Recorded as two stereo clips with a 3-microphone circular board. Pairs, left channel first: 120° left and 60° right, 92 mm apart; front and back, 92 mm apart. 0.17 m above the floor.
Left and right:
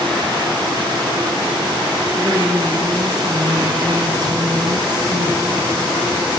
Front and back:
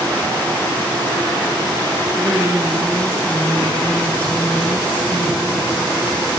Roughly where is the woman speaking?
Behind right.